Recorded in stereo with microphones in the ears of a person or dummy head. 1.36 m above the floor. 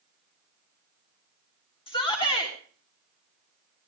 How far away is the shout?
About 3.5 m.